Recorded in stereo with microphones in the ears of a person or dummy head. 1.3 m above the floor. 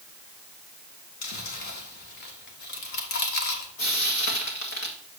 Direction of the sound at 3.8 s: 65° left (ahead or behind).